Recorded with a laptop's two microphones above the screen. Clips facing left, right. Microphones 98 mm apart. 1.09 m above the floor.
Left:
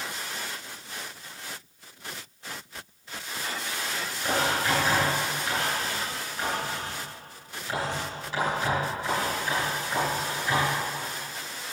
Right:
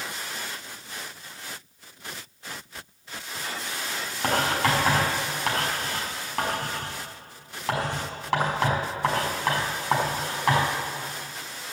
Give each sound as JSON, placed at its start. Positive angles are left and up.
{"t": 4.2, "sound": "writing", "side_deg": -85, "distance_m": 5.0}